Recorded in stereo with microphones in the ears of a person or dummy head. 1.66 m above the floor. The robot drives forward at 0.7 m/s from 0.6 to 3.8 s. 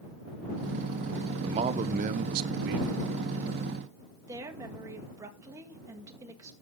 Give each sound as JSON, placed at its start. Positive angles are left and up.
{"t": 1.4, "sound": "a man speaking", "side_deg": -30, "distance_m": 1.0}
{"t": 4.3, "sound": "a woman speaking", "side_deg": -15, "distance_m": 1.8}